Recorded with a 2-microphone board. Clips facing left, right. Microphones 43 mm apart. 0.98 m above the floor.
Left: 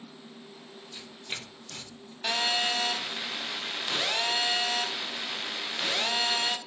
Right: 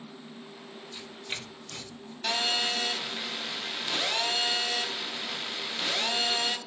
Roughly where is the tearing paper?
Centre.